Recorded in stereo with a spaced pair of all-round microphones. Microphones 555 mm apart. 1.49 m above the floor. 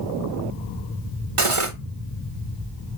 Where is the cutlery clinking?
65° right (ahead or behind), 1.2 m.